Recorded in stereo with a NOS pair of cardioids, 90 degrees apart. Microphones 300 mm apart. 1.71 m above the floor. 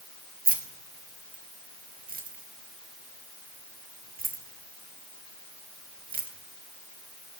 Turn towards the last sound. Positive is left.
turn(degrees=-30)